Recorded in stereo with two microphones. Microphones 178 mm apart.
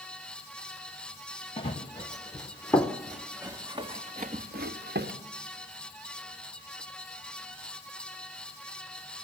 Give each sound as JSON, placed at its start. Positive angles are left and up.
{"t": 1.6, "sound": "running footsteps", "side_deg": 30, "distance_m": 2.0}